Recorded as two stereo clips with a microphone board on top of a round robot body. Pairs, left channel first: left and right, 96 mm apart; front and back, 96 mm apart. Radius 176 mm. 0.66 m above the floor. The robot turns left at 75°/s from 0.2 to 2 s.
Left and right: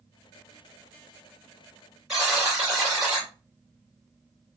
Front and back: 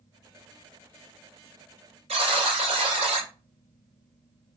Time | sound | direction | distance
2.1 | a buzzer | 175° right | 0.8 m